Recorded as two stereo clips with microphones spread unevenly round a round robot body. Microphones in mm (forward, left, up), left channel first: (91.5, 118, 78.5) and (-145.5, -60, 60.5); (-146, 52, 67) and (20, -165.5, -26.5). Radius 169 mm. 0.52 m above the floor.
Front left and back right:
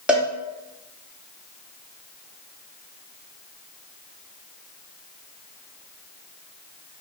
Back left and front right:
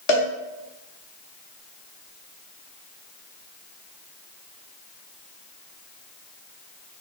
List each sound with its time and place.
0.1 s a cowbell: 135° left, 1.0 m